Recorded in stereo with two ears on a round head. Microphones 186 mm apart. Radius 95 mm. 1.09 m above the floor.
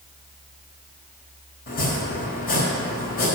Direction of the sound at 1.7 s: 45° left (ahead or behind).